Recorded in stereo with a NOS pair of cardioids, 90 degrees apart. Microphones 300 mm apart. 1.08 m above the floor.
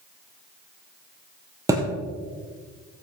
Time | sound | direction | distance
1.7 | a thud | 10° right | 3.5 m